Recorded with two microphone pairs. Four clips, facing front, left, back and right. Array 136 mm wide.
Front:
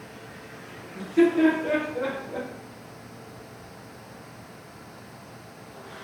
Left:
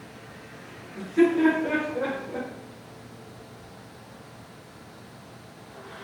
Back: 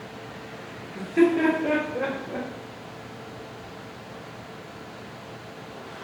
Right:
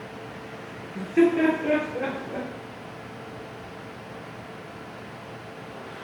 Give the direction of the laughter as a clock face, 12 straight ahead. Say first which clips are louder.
Right 1 dB, even; 4 o'clock.